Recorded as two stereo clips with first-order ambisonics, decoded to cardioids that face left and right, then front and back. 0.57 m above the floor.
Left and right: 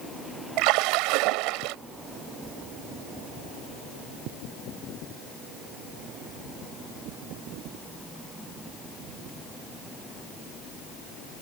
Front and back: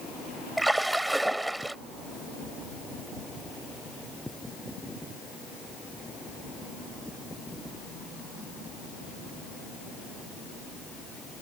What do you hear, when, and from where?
0.6 s a splash: 95° right